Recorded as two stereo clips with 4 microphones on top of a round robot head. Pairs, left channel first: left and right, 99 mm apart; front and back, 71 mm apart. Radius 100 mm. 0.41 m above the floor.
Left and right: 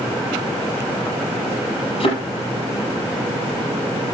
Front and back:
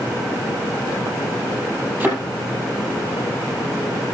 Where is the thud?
110° left, 6 m.